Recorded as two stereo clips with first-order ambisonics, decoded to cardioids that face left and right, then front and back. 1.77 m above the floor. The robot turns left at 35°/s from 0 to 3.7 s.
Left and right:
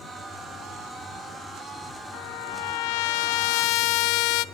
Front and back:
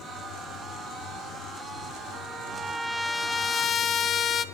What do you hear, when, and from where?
2.1 s a trumpet: 120° left, 0.5 m; by 4.5 s 65° left, 0.5 m